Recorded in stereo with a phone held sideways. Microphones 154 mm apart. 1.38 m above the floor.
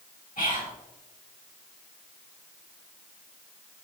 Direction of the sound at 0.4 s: 60° left (ahead or behind).